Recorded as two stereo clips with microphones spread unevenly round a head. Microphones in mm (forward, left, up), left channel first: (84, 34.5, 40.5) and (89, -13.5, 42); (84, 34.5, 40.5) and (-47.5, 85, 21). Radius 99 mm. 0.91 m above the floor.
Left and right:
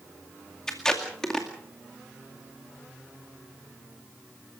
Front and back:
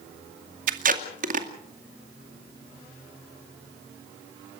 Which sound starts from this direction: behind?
Tape being pulled, at 0.7 s.